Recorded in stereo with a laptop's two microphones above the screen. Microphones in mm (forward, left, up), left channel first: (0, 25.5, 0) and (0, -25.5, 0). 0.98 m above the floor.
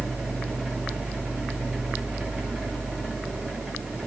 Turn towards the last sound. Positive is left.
turn(degrees=-5)  # may be behind; listen again after turning